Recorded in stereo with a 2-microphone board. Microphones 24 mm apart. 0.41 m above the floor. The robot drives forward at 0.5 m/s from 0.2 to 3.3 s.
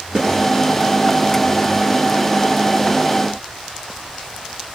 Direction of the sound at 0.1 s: 35° right (ahead or behind).